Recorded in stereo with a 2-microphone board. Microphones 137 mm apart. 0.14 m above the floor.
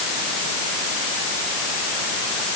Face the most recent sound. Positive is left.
No sound to turn to.